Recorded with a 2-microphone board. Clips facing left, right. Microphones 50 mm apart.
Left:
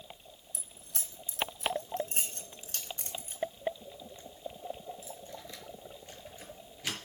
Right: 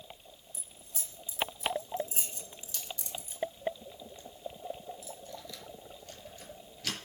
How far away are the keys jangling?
About 3 m.